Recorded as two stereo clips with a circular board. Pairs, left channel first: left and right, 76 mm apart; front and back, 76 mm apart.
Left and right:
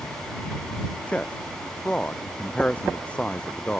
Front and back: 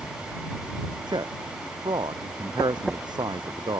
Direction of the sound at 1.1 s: 165° left.